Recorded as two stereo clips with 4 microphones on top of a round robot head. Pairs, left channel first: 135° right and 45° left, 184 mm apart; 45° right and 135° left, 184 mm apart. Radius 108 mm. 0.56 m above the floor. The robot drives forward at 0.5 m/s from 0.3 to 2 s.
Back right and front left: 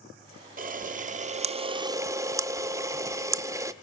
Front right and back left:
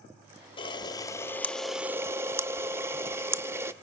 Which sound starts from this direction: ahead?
A camera shutter, at 0.6 s.